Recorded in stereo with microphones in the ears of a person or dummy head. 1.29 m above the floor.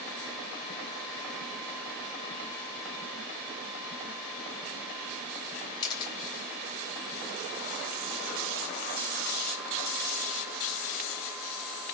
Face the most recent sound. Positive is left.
turn(degrees=25)  # may be behind; listen again after turning